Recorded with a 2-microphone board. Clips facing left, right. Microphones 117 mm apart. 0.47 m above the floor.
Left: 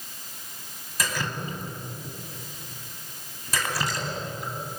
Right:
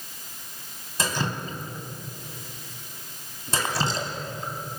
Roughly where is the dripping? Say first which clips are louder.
Right 2 dB; right.